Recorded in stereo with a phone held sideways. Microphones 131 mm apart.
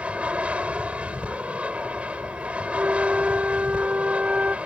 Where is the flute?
10° right (ahead or behind).